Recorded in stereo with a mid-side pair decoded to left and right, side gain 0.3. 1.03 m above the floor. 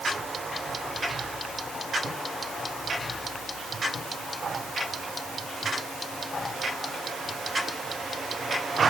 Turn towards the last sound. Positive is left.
No sound to turn to.